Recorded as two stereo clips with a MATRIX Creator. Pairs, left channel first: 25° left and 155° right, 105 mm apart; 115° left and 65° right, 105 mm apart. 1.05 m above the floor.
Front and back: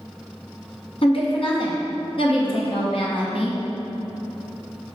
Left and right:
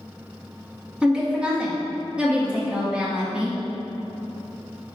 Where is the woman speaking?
10° left, 0.7 m.